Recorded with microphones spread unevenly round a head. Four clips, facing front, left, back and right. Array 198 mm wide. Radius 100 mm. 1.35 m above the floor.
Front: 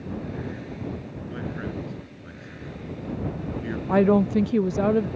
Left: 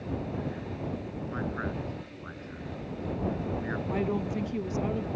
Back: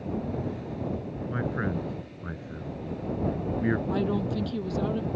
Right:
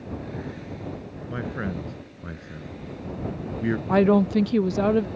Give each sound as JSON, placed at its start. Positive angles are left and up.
{"t": 1.3, "sound": "a man speaking", "azimuth_deg": -135}
{"t": 3.9, "sound": "a woman speaking", "azimuth_deg": -45}